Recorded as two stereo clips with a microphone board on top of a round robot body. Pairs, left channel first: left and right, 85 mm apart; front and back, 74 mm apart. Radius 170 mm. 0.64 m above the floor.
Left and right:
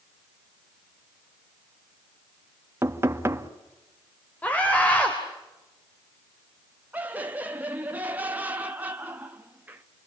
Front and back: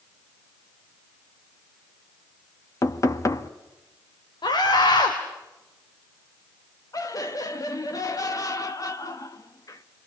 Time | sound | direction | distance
2.8 | knocking | 35° right | 1.5 m
4.4 | a scream | 15° left | 3 m
6.9 | laughter | 25° right | 1.4 m